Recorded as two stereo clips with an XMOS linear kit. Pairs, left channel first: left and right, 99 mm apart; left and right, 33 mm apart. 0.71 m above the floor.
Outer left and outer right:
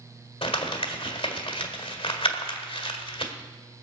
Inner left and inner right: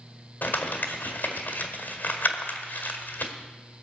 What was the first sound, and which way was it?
Crumpling, 70° left (ahead or behind).